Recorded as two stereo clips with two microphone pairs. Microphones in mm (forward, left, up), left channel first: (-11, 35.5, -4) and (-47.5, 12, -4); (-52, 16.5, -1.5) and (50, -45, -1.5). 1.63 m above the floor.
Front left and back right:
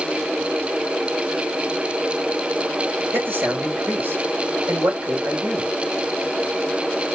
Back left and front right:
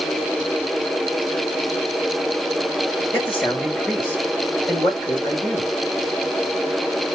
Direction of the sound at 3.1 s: 135° right.